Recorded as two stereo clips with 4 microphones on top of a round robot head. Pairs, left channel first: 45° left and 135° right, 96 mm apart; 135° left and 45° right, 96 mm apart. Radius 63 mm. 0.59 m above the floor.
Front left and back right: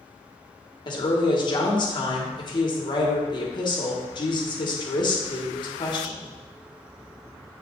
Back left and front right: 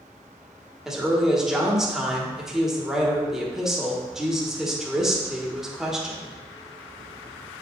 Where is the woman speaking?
35° left, 1.6 m.